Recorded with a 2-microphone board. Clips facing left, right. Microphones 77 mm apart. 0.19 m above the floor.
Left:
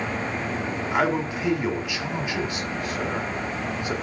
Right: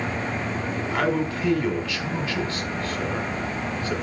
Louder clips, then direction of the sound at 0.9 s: Left 1 dB; 15° left (ahead or behind).